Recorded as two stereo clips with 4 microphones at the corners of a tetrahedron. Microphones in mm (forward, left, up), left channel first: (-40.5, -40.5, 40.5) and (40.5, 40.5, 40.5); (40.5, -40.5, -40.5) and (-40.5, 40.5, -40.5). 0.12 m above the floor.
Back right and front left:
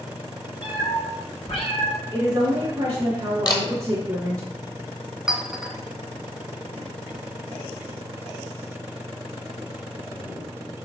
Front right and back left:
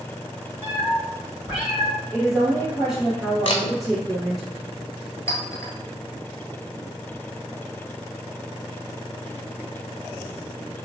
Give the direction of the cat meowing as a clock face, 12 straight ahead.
5 o'clock.